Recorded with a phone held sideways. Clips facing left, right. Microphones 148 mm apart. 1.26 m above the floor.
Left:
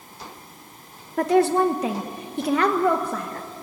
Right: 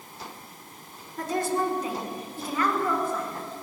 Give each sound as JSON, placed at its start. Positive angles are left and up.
{"t": 1.2, "sound": "a woman speaking", "side_deg": 70, "distance_m": 1.5}